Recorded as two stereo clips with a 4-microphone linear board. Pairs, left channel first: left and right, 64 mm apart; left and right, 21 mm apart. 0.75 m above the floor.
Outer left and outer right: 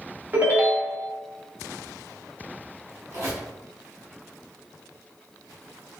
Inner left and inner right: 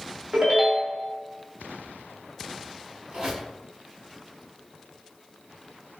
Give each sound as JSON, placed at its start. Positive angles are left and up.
{"t": 0.3, "sound": "a ringtone", "side_deg": -30, "distance_m": 0.7}
{"t": 3.1, "sound": "a squeak", "side_deg": -55, "distance_m": 1.9}